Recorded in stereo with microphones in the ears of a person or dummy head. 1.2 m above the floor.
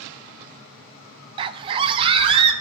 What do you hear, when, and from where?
1.4 s a scream: 25° right (ahead or behind), 0.7 m; by 2.5 s 30° right (ahead or behind), 1.6 m